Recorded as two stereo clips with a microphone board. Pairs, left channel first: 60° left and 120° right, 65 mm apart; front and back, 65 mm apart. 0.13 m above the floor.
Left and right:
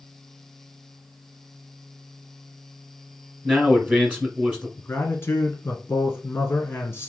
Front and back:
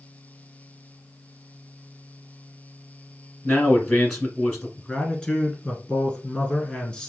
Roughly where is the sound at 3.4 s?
Right.